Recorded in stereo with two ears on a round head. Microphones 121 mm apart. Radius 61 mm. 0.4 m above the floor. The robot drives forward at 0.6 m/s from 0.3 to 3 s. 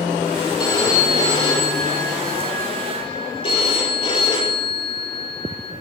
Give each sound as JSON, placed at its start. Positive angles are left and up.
{"t": 0.6, "sound": "a phone ringing", "side_deg": 35, "distance_m": 6.5}